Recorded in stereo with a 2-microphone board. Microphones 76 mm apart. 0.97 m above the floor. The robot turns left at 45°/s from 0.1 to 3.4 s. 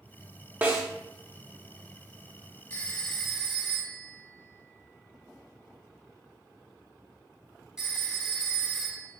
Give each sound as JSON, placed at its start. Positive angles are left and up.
{"t": 0.6, "sound": "a snare drum", "side_deg": -25, "distance_m": 0.9}
{"t": 2.7, "sound": "a phone ringing", "side_deg": 25, "distance_m": 0.8}